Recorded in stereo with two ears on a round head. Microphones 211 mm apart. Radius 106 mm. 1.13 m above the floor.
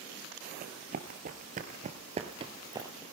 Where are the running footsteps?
35° right (ahead or behind), 1.6 m; by 3.0 s 15° right (ahead or behind), 1.5 m.